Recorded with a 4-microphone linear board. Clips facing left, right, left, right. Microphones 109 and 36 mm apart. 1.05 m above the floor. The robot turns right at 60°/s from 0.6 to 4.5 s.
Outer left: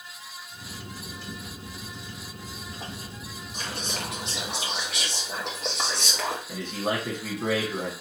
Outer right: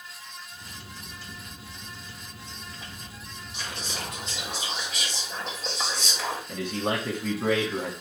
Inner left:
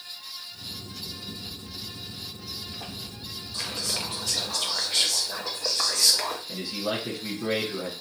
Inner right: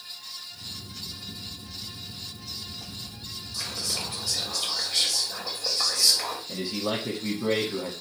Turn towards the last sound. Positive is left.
turn(degrees=5)  # may be behind; listen again after turning